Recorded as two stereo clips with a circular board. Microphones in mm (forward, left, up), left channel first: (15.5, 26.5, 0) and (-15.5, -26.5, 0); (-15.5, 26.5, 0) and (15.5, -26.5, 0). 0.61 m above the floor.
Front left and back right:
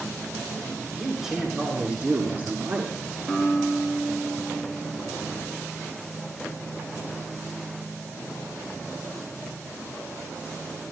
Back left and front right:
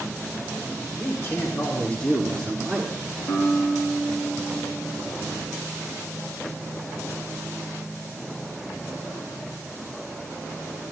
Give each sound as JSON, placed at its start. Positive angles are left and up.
{"t": 1.0, "sound": "a man speaking", "azimuth_deg": 150, "distance_m": 1.8}
{"t": 3.3, "sound": "a guitar", "azimuth_deg": 155, "distance_m": 5.0}